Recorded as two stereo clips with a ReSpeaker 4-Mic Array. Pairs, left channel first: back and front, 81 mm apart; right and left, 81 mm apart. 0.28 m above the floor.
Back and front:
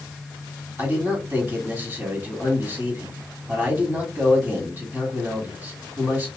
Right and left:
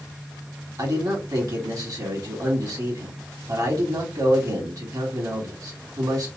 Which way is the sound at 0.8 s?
60° left.